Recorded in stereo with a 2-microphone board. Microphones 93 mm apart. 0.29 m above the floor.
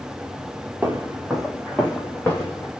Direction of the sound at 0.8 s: 15° right (ahead or behind).